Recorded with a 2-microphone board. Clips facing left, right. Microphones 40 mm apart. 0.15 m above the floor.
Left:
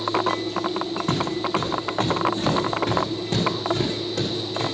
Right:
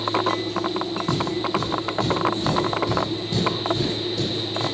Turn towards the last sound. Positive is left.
turn(degrees=80)